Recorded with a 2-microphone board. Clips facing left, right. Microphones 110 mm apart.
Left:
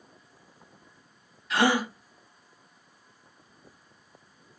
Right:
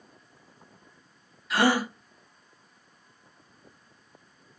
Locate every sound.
1.5 s a gasp: centre (ahead or behind), 1.5 m